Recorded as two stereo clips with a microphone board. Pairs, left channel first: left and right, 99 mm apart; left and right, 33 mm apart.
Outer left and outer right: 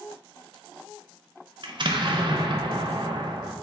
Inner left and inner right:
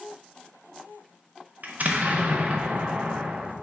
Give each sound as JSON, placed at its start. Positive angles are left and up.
{"t": 1.6, "sound": "an explosion", "side_deg": -55, "distance_m": 0.5}